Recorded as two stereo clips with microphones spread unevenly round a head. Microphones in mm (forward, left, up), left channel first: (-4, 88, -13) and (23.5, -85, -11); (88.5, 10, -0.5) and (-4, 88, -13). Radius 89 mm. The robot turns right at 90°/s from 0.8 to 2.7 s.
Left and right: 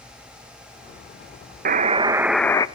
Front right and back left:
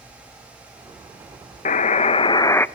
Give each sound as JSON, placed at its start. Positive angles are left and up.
{"t": 1.6, "sound": "a buzzer", "azimuth_deg": -55, "distance_m": 0.6}